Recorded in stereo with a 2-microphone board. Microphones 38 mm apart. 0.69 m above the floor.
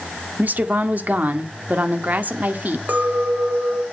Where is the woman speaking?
50° right (ahead or behind), 1.9 m.